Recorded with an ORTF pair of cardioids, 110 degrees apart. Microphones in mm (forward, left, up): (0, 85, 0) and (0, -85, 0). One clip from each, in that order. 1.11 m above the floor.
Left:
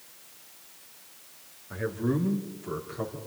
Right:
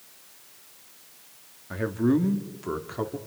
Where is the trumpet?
No trumpet in this recording.